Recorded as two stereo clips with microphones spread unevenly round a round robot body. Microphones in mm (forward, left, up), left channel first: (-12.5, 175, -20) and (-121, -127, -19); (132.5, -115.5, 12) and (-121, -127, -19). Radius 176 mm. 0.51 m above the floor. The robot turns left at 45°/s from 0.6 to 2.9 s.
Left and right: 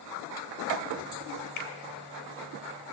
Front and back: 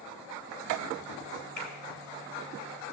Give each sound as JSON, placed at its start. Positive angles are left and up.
{"t": 1.6, "sound": "a finger snap", "azimuth_deg": 95, "distance_m": 2.0}